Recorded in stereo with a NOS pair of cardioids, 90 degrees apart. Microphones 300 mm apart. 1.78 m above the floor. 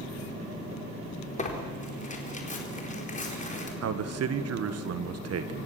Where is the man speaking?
55° right, 1.8 m.